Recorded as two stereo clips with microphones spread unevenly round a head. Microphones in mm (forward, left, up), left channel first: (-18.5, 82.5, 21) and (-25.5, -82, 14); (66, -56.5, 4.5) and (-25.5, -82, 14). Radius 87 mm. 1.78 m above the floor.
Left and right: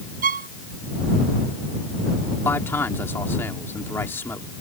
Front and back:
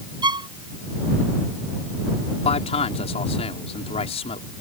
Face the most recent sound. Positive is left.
turn(degrees=10)